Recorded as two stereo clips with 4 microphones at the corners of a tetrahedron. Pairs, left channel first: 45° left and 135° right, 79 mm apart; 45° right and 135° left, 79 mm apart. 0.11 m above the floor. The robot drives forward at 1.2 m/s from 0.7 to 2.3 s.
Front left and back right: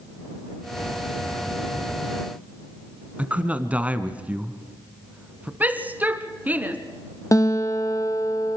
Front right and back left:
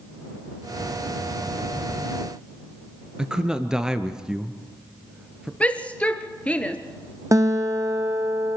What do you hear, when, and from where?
3.2 s a man speaking: 165° right, 1.1 m
5.6 s a shout: 95° right, 1.4 m
7.3 s a guitar: 90° left, 1.6 m